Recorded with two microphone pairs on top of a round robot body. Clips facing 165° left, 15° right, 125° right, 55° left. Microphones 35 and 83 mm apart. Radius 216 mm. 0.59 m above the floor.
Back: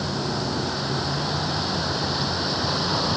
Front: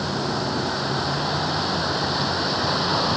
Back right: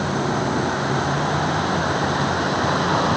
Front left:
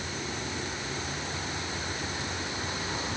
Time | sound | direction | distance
0.0 | a vehicle | 95° right | ?